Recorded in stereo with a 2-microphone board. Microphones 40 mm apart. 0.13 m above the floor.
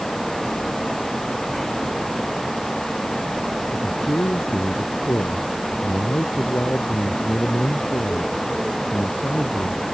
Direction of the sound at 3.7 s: 80° left.